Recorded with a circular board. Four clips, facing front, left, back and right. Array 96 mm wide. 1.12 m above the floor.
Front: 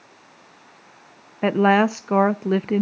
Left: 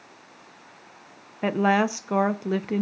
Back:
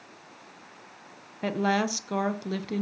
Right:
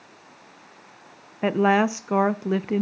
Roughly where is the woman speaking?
Ahead.